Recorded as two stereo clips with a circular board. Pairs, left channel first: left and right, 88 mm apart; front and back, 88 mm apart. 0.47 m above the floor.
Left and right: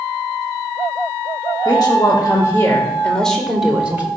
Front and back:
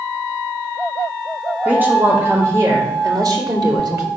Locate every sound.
1.6 s a woman speaking: 110° left, 2 m; by 4.1 s 155° right, 1.8 m